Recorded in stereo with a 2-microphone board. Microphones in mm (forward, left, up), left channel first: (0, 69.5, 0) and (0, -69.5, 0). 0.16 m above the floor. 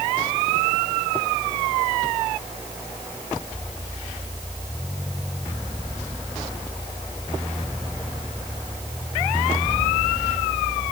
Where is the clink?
I don't hear a clink.